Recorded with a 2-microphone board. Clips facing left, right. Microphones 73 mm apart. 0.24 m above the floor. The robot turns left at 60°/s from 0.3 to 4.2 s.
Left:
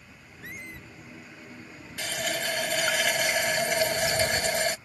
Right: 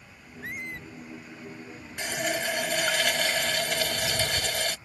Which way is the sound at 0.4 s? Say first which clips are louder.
Right 5 dB; 40° right (ahead or behind).